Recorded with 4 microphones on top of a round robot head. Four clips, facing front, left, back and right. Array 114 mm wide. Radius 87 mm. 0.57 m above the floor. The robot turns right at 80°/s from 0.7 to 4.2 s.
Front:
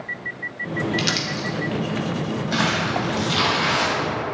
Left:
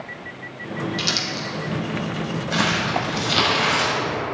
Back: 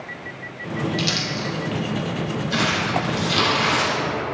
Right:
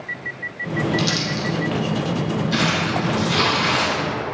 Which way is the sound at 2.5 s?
40° left.